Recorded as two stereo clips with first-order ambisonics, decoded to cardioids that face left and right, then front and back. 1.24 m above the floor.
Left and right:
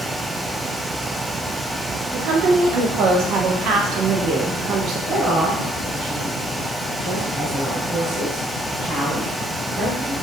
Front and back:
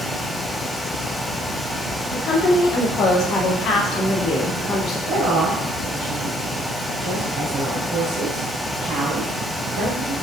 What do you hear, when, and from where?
2.1 s a woman speaking: 50° right, 0.8 m
5.1 s a woman speaking: 155° right, 2 m